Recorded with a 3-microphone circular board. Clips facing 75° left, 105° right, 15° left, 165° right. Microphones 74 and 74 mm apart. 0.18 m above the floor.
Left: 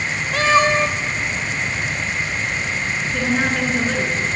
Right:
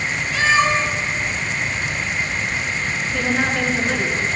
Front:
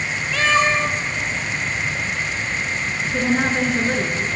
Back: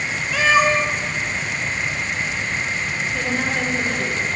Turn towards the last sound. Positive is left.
turn(degrees=-15)